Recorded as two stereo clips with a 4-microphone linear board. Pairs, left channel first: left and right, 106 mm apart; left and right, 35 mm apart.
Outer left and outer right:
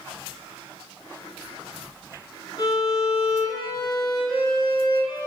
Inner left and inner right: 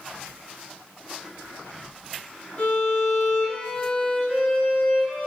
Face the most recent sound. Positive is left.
turn(degrees=35)  # may be behind; listen again after turning